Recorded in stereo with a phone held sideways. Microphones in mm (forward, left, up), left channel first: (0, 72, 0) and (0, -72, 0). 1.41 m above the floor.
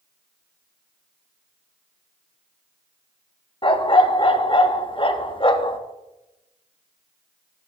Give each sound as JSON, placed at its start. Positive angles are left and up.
{"t": 3.6, "sound": "a dog barking", "side_deg": 40, "distance_m": 0.9}